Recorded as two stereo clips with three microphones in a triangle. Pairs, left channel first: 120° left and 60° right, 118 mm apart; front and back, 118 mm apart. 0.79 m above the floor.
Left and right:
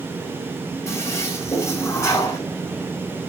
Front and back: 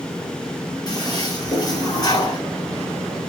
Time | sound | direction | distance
0.9 | a toilet flushing | 55° left | 3 m